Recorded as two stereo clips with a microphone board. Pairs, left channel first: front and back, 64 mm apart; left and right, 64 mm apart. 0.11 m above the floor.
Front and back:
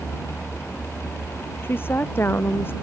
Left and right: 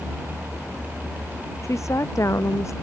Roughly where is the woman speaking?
Ahead left.